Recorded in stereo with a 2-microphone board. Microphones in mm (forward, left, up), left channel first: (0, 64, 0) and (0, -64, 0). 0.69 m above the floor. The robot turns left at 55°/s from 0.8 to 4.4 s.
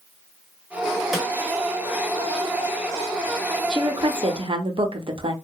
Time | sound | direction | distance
1.1 | a snare drum | centre (ahead or behind) | 0.7 m
3.7 | a woman speaking | 55° right | 0.6 m